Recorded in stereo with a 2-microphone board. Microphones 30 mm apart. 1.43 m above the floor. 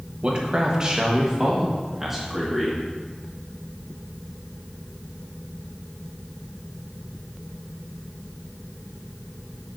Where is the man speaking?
35° right (ahead or behind), 1.2 m; by 2.8 s 5° right (ahead or behind), 2 m.